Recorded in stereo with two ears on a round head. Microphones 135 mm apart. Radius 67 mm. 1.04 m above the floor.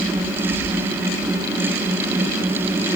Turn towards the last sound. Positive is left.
No sound to turn to.